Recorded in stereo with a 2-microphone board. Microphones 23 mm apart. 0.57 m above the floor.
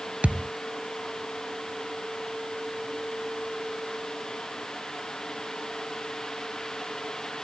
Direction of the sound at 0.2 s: 75° right (ahead or behind).